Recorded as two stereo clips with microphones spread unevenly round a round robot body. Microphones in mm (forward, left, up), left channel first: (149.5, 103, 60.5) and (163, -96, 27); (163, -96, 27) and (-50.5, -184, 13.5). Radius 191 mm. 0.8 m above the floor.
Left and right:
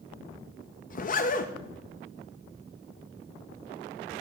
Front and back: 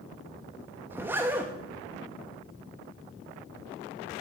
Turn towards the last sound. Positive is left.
turn(degrees=130)